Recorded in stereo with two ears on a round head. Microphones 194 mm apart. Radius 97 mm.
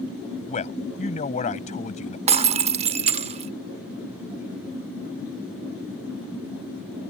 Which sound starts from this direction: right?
Breaking glass, at 2.3 s.